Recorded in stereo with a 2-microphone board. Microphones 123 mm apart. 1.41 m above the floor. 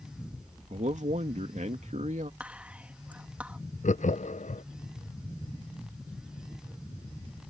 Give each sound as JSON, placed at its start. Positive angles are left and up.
{"t": 0.7, "sound": "a man speaking", "side_deg": -80}
{"t": 2.4, "sound": "whispering", "side_deg": -10}
{"t": 3.8, "sound": "laughter", "side_deg": 85}